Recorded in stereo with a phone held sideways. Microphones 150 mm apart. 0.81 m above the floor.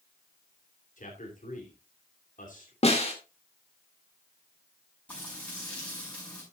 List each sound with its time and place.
1.0 s a man speaking: 60° left (ahead or behind), 3 m
2.8 s a snare drum: 45° left (ahead or behind), 2 m
5.1 s frying: 10° left (ahead or behind), 6.5 m